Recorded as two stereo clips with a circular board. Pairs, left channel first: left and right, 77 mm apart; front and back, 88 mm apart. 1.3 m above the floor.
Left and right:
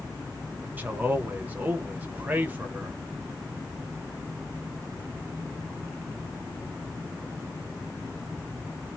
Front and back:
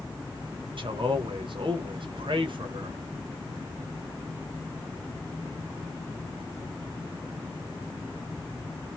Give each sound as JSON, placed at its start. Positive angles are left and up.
{"t": 0.8, "sound": "a man speaking", "azimuth_deg": -160, "distance_m": 1.1}